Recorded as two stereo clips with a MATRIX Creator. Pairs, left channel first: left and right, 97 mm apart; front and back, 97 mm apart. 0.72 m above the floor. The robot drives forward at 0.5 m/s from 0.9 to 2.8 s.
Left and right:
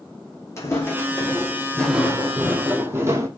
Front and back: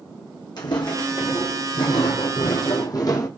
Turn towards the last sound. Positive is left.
turn(degrees=-40)